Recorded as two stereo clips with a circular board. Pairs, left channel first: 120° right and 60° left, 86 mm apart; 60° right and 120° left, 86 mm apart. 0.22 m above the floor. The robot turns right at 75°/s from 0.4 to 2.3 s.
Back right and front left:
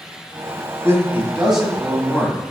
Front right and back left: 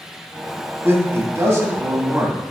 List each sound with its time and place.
0.8 s a man speaking: 85° left, 1.6 m; by 2.4 s 165° right, 1.6 m